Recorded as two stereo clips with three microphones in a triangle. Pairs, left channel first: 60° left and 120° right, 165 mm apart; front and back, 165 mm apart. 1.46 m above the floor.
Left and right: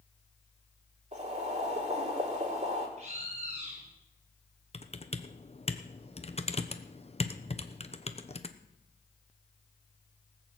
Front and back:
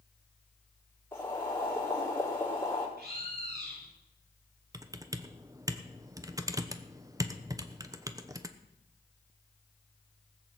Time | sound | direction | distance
1.1 | boiling | 75° right | 4.5 m
3.0 | a bird | 165° right | 4.5 m
4.7 | typing on a keyboard | 110° left | 0.9 m